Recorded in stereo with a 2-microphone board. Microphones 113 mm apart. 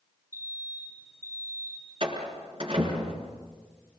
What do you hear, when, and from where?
0.3 s an alarm: 25° right (ahead or behind), 7.5 m
2.0 s a door slam: 55° right (ahead or behind), 5.5 m